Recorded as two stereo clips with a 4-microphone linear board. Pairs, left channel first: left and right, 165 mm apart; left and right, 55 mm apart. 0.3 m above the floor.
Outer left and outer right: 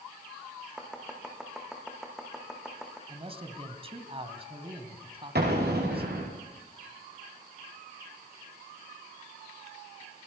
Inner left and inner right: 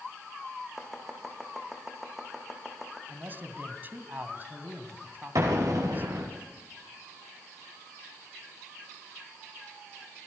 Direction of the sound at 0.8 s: 5° right (ahead or behind).